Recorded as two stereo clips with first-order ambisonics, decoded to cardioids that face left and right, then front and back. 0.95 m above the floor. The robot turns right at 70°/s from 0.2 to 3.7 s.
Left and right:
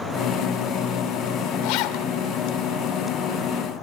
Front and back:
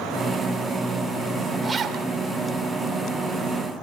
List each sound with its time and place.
1.6 s a zipper: 100° left, 2.0 m; by 2.1 s 130° left, 2.0 m